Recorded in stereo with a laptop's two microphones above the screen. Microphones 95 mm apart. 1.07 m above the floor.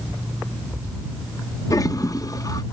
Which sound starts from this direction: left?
A toilet flushing, at 1.7 s.